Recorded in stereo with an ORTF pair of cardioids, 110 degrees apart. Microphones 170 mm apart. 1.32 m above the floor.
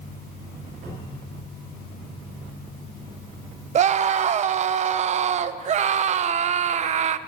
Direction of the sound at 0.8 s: 55° right.